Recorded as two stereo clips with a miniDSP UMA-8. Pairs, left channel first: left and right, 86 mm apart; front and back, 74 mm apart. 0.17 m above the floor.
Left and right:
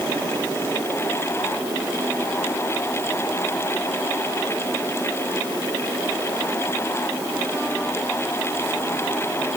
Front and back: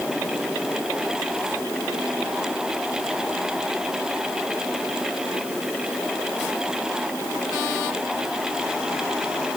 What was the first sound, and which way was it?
Only background noise.